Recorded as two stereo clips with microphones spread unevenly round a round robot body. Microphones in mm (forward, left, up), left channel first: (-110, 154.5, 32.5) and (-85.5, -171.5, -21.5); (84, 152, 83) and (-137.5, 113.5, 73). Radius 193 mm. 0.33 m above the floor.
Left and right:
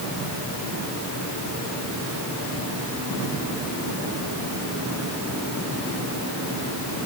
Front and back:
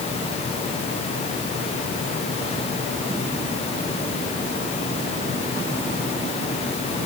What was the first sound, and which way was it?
Only background noise.